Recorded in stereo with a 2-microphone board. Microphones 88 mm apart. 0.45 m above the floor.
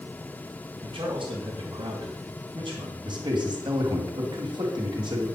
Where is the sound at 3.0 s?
60° right (ahead or behind), 2.5 m.